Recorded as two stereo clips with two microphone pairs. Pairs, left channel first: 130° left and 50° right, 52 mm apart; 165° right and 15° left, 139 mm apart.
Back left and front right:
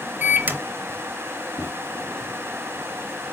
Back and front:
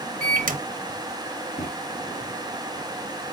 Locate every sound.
0.2 s a microwave: straight ahead, 0.5 m
1.6 s a microwave: 170° left, 1.3 m